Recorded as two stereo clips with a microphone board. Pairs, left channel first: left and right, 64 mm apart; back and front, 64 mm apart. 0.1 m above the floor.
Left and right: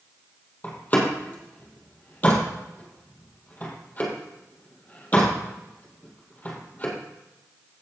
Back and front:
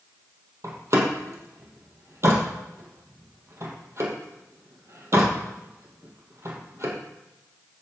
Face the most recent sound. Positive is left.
turn(degrees=30)